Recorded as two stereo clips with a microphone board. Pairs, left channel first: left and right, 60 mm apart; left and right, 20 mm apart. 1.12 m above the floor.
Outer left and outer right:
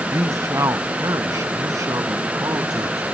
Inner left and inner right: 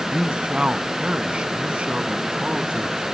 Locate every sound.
0.1 s a man speaking: 60° right (ahead or behind); by 3.1 s 75° right (ahead or behind)